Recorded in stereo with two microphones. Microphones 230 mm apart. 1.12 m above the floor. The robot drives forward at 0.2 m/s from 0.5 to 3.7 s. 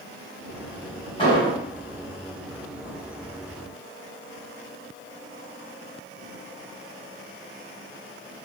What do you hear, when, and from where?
1.2 s an explosion: 25° left (ahead or behind), 1.2 m; by 1.6 s 20° left (ahead or behind), 1.3 m